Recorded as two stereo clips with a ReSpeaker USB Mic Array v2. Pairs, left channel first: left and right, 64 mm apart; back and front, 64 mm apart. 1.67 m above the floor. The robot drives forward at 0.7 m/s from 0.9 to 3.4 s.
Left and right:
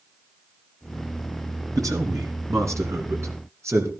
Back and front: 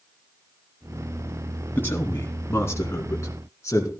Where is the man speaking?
120° right, 3 m; by 3.9 s 135° right, 3.5 m.